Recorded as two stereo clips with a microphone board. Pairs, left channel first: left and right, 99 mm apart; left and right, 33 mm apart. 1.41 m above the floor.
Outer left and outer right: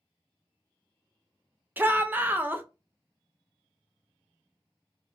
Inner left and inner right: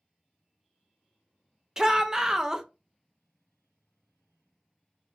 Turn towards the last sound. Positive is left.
turn(degrees=-20)  # may be behind; listen again after turning